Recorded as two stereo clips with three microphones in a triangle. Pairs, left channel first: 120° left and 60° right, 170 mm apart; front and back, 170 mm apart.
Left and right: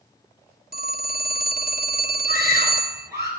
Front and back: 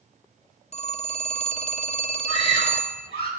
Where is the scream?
15° left, 6.5 m.